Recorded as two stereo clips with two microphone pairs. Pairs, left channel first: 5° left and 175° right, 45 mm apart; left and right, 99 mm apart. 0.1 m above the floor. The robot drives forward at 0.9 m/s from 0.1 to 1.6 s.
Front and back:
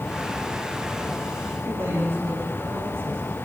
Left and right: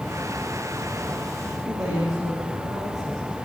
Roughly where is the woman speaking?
Behind right.